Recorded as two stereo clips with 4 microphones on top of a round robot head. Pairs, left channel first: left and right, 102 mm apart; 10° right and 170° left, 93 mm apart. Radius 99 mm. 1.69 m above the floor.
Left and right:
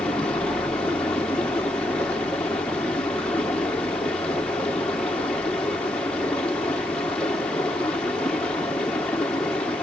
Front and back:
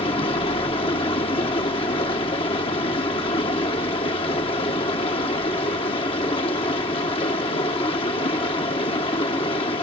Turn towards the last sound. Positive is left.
turn(degrees=10)